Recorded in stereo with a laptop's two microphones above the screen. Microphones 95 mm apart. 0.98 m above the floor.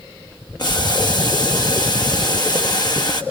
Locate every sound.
0.6 s boiling: 50° left (ahead or behind), 1.4 m